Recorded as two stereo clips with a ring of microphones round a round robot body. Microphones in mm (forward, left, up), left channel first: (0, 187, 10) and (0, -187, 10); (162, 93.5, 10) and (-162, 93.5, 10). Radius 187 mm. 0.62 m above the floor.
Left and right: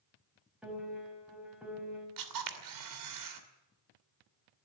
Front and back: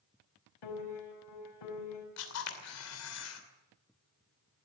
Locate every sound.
0.6 s a piano: 5° right, 5 m
2.2 s a camera shutter: 50° right, 2.5 m